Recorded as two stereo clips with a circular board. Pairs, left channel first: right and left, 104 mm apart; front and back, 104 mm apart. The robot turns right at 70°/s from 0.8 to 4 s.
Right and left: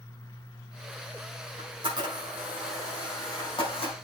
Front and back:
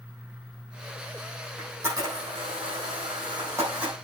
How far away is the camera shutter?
About 6.5 m.